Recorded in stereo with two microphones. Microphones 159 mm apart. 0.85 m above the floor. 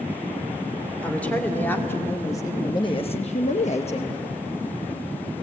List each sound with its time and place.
1.0 s a woman speaking: 10° left (ahead or behind), 3 m; by 4.2 s 35° left (ahead or behind), 1.2 m